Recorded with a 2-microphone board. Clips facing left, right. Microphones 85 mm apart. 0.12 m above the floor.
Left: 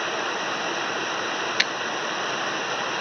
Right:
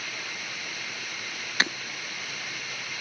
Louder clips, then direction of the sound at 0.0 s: Left 12 dB; 55° left (ahead or behind).